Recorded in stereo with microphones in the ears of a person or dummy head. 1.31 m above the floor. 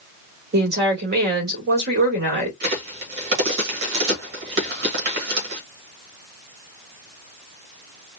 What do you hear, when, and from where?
0.5 s a woman speaking: 55° right (ahead or behind), 3 m
2.6 s a crack: 60° right (ahead or behind), 2.0 m